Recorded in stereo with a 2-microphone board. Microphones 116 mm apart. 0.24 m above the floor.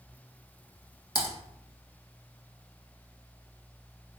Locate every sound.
1.1 s typing on a keyboard: 35° left (ahead or behind), 1.1 m